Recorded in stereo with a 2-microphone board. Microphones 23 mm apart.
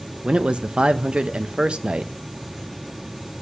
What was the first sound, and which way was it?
A man speaking, 50° right (ahead or behind).